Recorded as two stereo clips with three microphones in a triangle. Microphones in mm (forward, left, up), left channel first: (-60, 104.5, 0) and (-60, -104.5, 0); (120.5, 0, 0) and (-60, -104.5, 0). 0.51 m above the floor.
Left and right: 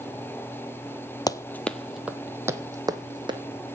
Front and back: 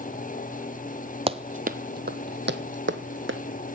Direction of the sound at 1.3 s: 160° left.